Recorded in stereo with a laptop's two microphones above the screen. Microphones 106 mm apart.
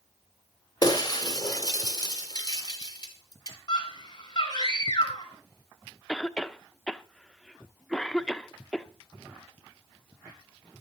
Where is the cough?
5° left (ahead or behind), 0.9 m.